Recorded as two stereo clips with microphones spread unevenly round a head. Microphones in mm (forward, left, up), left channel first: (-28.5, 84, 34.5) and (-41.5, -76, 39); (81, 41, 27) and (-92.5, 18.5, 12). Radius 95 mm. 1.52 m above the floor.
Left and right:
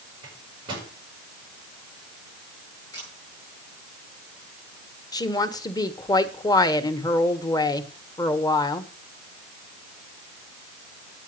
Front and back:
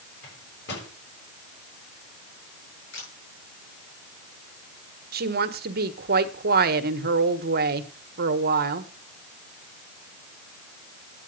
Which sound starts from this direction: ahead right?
A microwave, at 0.2 s.